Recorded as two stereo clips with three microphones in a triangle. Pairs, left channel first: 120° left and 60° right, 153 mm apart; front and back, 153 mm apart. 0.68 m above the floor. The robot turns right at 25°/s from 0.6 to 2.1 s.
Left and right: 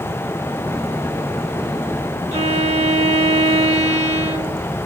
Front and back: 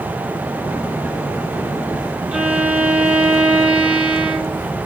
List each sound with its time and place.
2.3 s a violin: 100° right, 1.3 m